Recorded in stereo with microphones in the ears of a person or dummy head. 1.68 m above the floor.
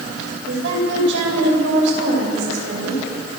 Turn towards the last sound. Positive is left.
turn(degrees=-75)  # may be behind; listen again after turning